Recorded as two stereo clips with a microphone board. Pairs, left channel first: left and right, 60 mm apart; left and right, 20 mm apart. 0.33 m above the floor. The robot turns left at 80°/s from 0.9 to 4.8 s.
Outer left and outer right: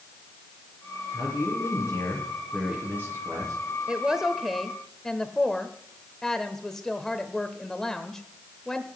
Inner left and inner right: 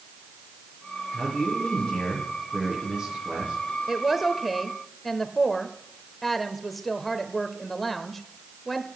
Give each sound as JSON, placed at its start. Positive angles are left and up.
{"t": 1.1, "sound": "a man speaking", "azimuth_deg": 115, "distance_m": 6.0}
{"t": 3.9, "sound": "a woman speaking", "side_deg": -15, "distance_m": 0.8}